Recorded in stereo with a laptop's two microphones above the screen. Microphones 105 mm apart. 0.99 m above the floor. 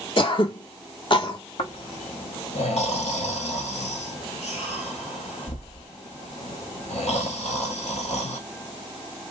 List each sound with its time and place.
0.2 s throat clearing: 50° left (ahead or behind), 0.7 m
1.6 s snoring: 80° left, 1.1 m